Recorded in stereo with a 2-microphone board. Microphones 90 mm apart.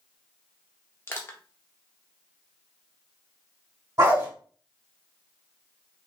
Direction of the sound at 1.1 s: 25° left (ahead or behind).